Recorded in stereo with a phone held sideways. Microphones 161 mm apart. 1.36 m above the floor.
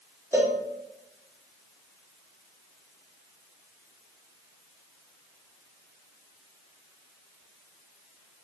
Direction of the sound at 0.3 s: 15° right (ahead or behind).